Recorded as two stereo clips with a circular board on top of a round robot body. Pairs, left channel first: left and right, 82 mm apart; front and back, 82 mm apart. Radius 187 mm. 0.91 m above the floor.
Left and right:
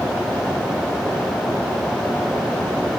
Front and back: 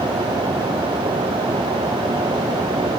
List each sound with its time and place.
Only background noise.